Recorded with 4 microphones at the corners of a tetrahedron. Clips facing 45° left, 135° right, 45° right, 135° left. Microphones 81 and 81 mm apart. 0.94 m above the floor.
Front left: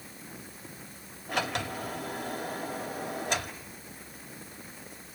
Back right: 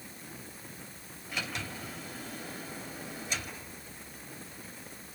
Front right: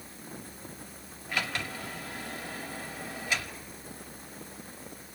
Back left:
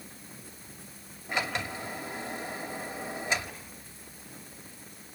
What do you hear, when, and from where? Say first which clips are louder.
1.3 s a sliding door: front left 7 dB, back left 2 dB; 70° left, 2 m